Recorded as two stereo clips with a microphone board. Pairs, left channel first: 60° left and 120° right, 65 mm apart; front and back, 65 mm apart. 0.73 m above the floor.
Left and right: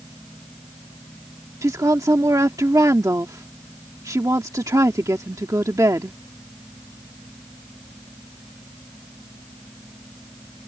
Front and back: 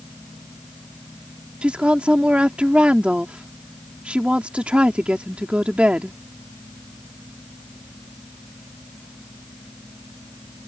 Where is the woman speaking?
110° right.